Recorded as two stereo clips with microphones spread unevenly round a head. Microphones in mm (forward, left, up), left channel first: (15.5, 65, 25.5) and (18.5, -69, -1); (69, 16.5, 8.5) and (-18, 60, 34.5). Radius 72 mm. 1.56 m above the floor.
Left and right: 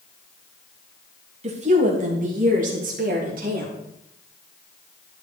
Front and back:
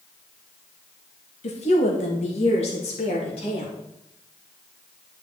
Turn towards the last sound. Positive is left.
turn(degrees=-65)